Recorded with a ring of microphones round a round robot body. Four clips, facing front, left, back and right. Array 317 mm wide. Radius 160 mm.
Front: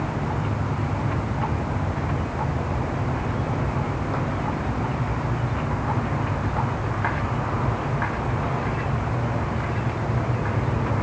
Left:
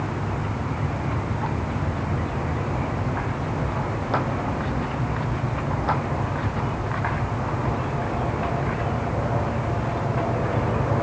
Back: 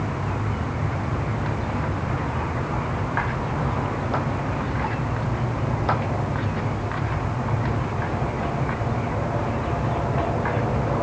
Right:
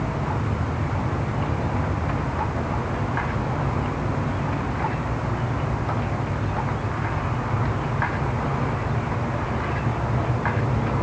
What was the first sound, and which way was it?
Only background noise.